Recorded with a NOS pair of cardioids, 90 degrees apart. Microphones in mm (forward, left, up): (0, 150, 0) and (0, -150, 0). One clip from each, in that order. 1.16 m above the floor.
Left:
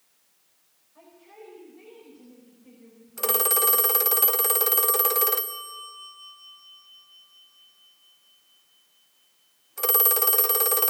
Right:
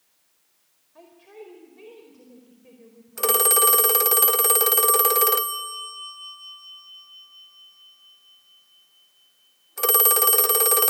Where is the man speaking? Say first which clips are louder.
Right 4 dB; 55° right, 4.5 m.